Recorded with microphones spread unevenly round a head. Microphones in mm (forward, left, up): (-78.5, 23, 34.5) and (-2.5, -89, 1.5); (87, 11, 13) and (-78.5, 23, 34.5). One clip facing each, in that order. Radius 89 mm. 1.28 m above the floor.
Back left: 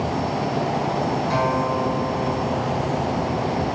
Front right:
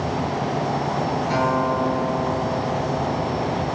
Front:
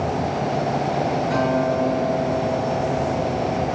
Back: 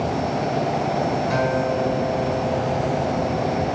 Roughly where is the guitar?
Behind right.